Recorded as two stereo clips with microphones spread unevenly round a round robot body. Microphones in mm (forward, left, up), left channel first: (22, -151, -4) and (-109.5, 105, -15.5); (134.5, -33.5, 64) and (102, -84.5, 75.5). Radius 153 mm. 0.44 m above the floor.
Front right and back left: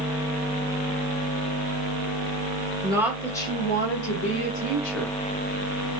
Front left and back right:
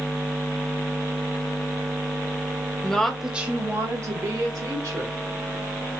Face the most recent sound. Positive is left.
turn(degrees=-105)